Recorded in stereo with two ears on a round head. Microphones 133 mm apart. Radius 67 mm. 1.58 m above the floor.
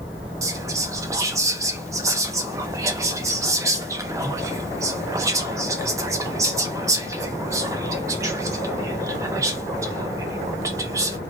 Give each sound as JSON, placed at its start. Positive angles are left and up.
{"t": 0.4, "sound": "whispering", "side_deg": -20, "distance_m": 0.6}